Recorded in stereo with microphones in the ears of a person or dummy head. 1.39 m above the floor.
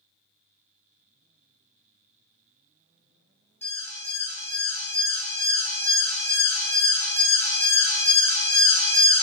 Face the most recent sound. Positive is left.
turn(degrees=15)  # may be behind; listen again after turning